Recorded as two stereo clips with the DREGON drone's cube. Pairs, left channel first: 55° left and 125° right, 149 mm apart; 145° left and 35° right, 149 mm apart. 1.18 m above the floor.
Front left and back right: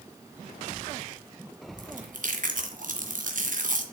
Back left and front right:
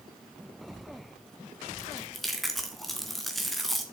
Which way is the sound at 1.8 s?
125° right.